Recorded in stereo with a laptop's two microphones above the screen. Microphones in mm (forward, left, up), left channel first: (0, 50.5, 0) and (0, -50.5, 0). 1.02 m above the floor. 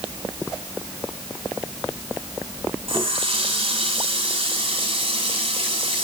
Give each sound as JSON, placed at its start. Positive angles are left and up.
{"t": 2.9, "sound": "a running tap", "side_deg": -60, "distance_m": 3.0}